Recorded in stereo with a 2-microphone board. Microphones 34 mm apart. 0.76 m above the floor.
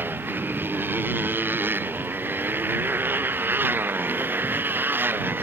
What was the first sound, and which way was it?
A motorcycle, 70° right (ahead or behind).